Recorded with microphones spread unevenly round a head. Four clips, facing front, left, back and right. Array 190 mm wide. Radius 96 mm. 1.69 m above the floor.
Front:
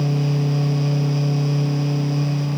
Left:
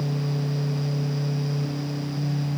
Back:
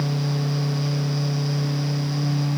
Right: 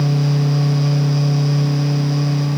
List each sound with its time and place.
Only background noise.